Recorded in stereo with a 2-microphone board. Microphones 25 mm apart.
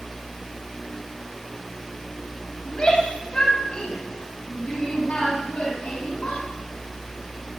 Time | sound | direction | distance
2.6 | a shout | 40° left (ahead or behind) | 3.5 m